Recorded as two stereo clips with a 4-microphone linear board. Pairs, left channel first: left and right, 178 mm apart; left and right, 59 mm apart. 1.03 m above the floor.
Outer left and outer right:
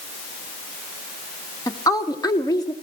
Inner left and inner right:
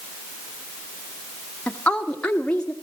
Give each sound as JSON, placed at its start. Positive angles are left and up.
{"t": 1.7, "sound": "a woman speaking", "side_deg": 20, "distance_m": 1.7}